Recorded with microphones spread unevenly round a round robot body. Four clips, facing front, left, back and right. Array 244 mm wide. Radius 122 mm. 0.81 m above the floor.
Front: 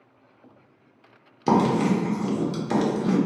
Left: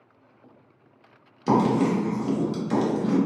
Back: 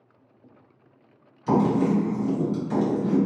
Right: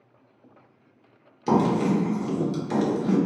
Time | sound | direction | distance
1.5 | writing | 5° left | 1.1 m